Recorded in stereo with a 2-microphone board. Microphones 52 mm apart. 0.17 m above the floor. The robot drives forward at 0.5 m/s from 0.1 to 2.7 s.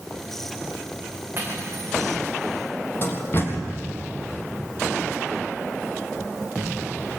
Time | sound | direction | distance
1.4 | cutlery clinking | 35° right (ahead or behind) | 8.5 m
3.0 | a door slam | 45° left (ahead or behind) | 5 m